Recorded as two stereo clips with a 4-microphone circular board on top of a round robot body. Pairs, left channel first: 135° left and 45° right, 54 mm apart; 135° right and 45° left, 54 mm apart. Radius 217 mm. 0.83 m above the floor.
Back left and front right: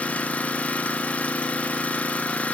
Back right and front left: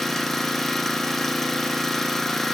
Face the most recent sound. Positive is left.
turn(degrees=145)